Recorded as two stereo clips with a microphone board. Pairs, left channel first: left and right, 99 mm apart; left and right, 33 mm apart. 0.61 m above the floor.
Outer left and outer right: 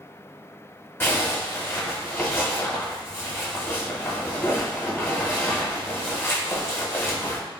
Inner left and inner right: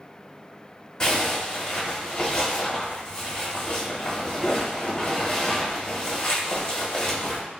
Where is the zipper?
20° left (ahead or behind), 0.8 m.